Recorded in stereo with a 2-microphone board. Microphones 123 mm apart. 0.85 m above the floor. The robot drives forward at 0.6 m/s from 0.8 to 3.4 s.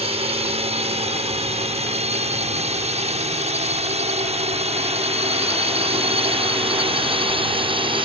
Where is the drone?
55° right (ahead or behind); by 8.1 s 45° right (ahead or behind).